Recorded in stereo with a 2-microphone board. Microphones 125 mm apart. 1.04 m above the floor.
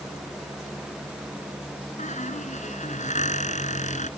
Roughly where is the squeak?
Left.